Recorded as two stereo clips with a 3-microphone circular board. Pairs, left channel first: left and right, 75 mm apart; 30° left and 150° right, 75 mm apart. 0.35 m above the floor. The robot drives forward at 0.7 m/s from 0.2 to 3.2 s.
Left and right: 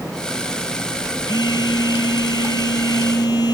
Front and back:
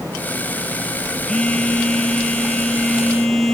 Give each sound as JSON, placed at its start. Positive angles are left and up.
{"t": 1.3, "sound": "a phone buzzing", "azimuth_deg": 110, "distance_m": 5.0}